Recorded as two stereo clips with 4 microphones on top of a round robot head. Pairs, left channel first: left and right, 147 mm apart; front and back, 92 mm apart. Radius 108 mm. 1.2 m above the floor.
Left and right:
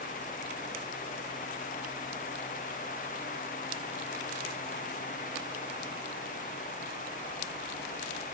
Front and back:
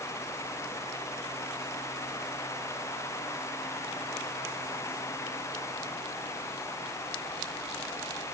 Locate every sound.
Only background noise.